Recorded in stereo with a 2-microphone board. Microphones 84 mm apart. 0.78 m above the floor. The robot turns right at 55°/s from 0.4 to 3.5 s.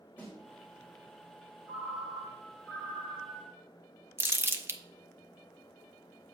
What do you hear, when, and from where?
0.2 s a snare drum: 20° left (ahead or behind), 2 m
1.7 s a ringtone: 90° left, 3 m; by 3.6 s 170° right, 3 m
4.2 s crumpling: 30° right (ahead or behind), 0.7 m